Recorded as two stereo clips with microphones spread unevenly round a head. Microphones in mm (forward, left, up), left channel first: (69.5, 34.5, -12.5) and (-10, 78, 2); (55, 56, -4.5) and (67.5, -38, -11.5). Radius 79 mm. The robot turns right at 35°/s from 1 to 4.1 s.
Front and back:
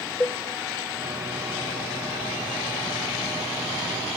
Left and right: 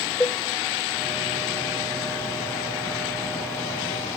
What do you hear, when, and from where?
0.2 s a cowbell: 55° left, 0.7 m